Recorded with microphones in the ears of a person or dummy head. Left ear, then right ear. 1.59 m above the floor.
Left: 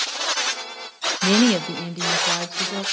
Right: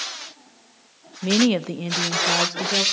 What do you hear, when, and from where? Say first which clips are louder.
1.2 s a woman speaking: left 1 dB; 30° left (ahead or behind), 0.6 m; by 2.8 s 30° right (ahead or behind), 1.9 m